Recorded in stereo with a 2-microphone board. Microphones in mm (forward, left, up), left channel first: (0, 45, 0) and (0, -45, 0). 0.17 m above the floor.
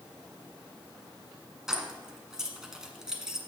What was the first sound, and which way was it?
Keys jangling, 10° right (ahead or behind).